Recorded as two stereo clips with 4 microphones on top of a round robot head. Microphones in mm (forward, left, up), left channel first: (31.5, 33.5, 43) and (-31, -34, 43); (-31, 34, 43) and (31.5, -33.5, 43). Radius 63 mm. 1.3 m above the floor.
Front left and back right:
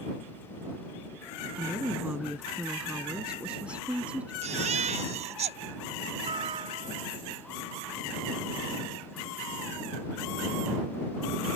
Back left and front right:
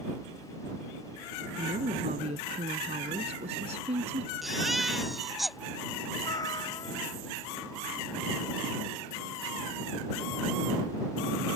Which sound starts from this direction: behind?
A cat meowing, at 6.2 s.